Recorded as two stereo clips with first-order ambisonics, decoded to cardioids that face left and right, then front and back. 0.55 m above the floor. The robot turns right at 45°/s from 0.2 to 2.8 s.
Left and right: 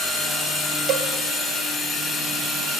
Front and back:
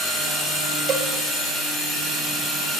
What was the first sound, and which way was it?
A cowbell, 125° right.